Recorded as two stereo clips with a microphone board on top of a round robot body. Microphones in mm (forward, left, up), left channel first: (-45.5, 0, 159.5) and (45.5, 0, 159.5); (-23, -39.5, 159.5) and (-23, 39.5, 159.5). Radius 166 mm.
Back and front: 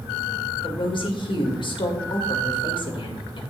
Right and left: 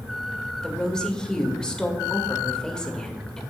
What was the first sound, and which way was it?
A woman speaking, 170° right.